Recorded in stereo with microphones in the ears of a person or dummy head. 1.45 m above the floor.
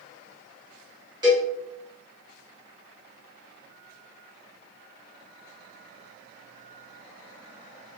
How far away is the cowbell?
About 1.8 m.